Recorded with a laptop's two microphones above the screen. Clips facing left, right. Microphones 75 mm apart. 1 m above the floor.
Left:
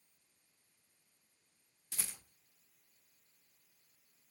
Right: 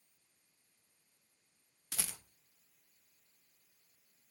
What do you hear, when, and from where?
1.9 s a rattle: 75° right (ahead or behind), 0.6 m